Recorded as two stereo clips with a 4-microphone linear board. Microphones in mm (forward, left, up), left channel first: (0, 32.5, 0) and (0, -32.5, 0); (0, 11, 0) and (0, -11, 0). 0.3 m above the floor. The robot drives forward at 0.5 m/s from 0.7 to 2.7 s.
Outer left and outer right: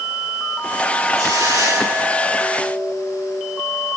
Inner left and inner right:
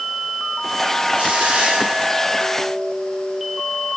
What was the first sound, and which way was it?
A hiss, 80° right.